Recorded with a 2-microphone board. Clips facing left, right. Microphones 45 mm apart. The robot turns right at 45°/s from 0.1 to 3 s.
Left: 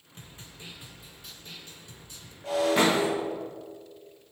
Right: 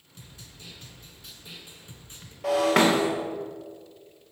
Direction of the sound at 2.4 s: 65° right (ahead or behind).